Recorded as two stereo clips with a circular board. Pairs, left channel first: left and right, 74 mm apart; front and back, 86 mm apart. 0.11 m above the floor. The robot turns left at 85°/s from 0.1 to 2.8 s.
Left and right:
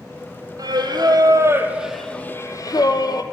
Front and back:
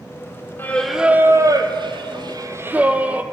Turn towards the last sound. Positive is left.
turn(degrees=110)